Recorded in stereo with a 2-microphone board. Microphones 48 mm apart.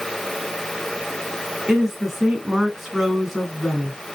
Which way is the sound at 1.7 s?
15° right (ahead or behind).